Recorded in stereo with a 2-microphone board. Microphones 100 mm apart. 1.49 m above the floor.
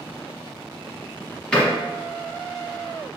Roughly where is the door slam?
Centre.